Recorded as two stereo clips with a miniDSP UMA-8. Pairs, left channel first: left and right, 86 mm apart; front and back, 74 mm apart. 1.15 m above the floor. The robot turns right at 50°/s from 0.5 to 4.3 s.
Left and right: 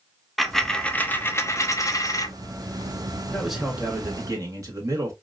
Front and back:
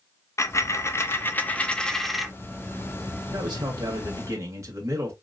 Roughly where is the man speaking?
Behind.